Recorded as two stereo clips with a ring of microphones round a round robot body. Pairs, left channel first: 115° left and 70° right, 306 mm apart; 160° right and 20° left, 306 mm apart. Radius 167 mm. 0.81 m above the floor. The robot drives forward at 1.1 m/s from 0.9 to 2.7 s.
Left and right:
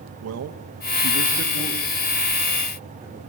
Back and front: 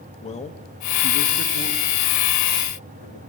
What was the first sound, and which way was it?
A man speaking, 90° right.